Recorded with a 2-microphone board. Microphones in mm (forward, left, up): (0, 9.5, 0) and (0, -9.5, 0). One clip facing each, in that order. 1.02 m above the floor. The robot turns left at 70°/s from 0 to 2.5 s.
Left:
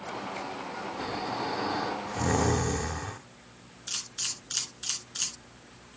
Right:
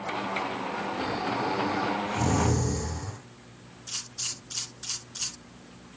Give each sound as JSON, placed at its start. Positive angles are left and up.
{"t": 1.0, "sound": "snoring", "azimuth_deg": -175, "distance_m": 1.4}
{"t": 3.9, "sound": "a camera shutter", "side_deg": 45, "distance_m": 3.5}